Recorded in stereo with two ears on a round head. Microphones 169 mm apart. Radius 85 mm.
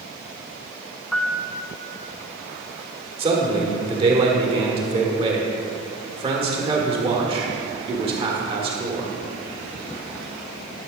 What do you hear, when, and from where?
1.1 s a piano: 5° left (ahead or behind), 0.5 m
3.2 s a man speaking: 30° right (ahead or behind), 1.5 m